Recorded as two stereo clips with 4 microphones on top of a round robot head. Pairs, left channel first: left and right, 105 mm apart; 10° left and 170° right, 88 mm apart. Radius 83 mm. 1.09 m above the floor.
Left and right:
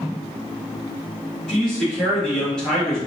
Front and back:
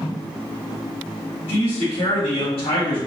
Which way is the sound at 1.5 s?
5° left.